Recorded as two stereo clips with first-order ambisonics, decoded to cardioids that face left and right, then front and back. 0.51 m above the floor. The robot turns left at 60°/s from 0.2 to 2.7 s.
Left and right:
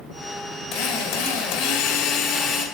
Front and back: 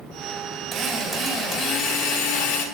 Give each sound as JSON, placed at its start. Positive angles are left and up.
{"t": 0.7, "sound": "a drill", "azimuth_deg": 120, "distance_m": 2.5}